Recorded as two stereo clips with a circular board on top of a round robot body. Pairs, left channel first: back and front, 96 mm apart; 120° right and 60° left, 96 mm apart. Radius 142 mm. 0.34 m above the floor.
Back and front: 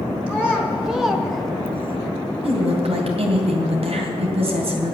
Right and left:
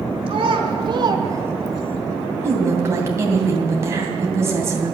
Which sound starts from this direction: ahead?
A woman speaking, at 2.4 s.